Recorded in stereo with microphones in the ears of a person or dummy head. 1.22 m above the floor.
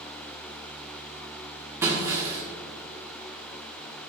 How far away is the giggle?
I don't hear a giggle.